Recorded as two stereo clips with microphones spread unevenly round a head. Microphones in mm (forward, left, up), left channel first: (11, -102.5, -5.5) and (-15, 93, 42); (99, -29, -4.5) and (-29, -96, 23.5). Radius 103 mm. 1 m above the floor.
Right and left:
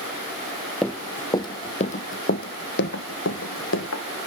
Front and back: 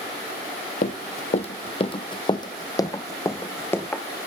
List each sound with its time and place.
0.8 s running footsteps: 25° left, 1.2 m; by 4.0 s 55° right, 2.5 m